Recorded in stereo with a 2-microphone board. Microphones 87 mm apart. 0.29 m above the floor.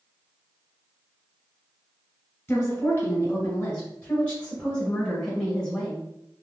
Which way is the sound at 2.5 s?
20° left (ahead or behind).